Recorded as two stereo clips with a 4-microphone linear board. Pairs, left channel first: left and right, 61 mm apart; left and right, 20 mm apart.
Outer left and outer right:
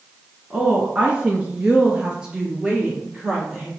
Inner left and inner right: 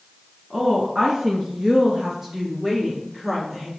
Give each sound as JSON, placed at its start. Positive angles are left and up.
{"t": 0.5, "sound": "a woman speaking", "side_deg": -20, "distance_m": 1.1}